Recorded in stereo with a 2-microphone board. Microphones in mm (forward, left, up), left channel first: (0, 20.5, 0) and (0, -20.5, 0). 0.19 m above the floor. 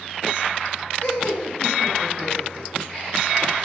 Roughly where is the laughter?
Left.